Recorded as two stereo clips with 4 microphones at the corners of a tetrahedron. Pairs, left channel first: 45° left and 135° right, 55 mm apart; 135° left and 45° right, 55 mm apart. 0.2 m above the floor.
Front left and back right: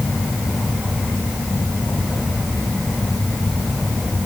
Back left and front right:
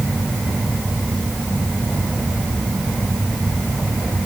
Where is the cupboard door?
I don't hear a cupboard door.